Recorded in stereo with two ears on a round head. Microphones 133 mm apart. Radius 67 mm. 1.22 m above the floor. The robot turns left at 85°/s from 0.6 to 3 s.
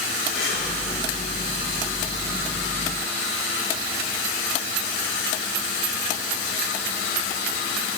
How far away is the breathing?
About 8 m.